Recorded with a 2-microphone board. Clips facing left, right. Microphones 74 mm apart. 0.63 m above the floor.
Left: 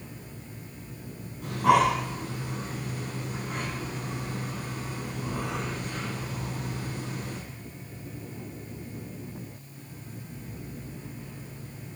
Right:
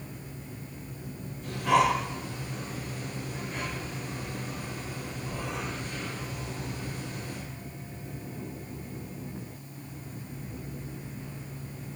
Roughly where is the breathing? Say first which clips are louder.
Left 3 dB; left.